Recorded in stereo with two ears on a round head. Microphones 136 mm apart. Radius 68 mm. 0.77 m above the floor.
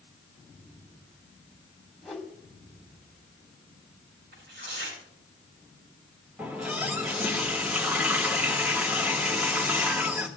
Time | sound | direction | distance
2.0 | a whoosh | centre (ahead or behind) | 2.5 m
4.3 | tearing paper | 85° right | 6.5 m
6.4 | a running tap | 10° right (ahead or behind) | 1.6 m